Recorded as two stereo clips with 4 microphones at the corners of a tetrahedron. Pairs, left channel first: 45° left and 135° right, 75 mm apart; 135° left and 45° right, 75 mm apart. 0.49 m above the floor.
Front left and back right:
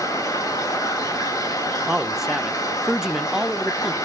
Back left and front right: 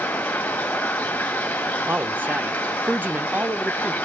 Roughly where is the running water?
Left.